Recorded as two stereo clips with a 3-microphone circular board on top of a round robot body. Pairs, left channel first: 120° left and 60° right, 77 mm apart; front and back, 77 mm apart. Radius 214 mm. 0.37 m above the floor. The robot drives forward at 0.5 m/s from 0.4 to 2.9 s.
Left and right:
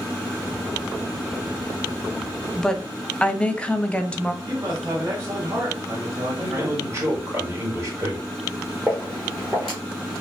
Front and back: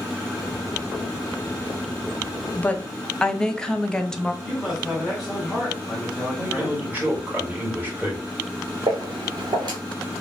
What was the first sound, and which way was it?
A woman speaking, 40° left.